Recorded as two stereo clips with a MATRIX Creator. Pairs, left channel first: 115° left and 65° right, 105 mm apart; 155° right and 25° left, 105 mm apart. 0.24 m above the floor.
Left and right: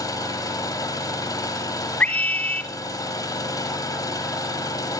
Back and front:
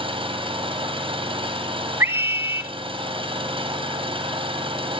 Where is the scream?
55° left, 1.1 m.